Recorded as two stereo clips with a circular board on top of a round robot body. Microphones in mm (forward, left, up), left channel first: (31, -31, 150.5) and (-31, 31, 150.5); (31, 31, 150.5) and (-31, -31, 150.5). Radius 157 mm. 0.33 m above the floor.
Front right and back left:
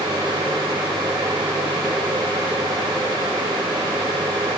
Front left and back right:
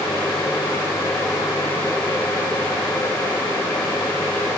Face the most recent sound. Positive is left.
No sound to turn to.